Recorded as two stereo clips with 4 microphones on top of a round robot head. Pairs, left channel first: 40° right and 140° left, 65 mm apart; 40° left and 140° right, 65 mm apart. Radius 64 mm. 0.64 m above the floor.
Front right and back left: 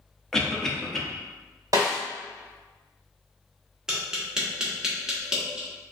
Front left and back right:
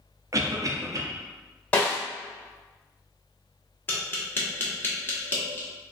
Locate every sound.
0.3 s a cough: 120° right, 0.9 m
1.7 s a snare drum: 105° left, 1.5 m
3.9 s tapping: 70° left, 1.4 m